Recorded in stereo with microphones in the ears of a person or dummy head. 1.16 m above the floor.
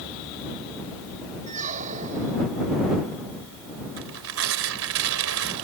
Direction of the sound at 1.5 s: 35° right (ahead or behind).